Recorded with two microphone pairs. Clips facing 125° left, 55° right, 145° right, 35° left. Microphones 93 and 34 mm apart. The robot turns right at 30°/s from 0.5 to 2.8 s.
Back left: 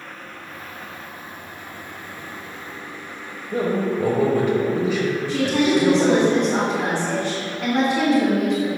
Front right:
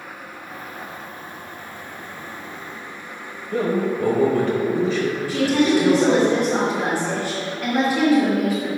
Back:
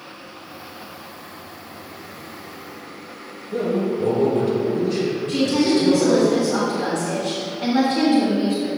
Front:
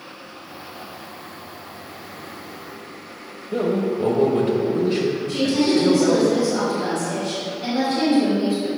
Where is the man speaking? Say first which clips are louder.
Even, even; 60° left, 1.0 m.